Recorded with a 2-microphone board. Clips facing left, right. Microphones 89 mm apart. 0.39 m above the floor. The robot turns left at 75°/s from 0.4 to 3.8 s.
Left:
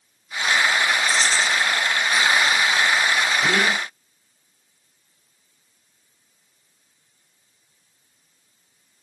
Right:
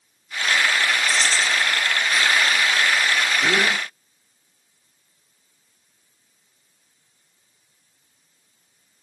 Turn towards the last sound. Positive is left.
turn(degrees=10)  # may be behind; listen again after turning